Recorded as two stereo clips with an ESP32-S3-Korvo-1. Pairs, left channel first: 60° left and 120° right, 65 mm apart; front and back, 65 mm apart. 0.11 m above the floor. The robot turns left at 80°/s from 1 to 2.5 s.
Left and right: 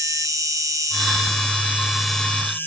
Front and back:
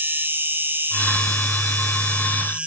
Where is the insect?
125° right; by 2.7 s 115° left.